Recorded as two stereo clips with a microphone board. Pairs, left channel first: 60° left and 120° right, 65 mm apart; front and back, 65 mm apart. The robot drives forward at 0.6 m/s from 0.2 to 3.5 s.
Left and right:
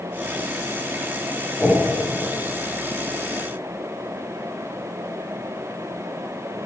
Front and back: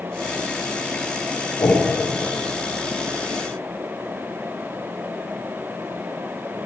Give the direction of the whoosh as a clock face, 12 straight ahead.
12 o'clock.